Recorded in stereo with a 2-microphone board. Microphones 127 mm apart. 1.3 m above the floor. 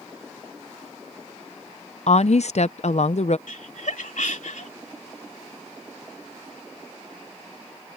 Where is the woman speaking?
60° left (ahead or behind).